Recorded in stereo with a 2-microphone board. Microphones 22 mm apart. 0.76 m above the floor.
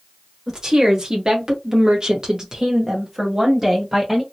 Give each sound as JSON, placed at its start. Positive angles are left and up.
{"t": 0.5, "sound": "a woman speaking", "side_deg": -25, "distance_m": 1.7}